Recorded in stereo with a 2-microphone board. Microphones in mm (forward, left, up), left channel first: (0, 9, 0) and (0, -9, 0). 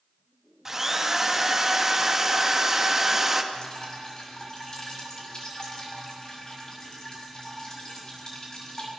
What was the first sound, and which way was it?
A drill, 20° right (ahead or behind).